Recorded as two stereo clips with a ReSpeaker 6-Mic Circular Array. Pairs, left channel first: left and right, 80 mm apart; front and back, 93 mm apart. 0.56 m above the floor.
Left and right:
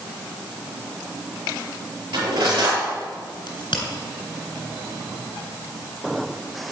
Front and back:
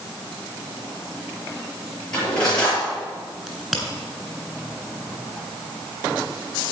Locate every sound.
2.1 s cutlery clinking: 80° right, 6 m
3.5 s a crack: 95° left, 3 m